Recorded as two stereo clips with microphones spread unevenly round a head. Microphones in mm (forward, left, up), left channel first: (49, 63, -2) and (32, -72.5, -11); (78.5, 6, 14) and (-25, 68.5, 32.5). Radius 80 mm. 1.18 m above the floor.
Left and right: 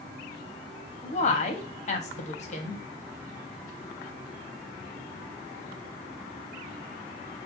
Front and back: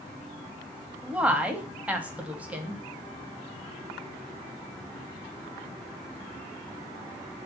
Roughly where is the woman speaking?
Ahead left.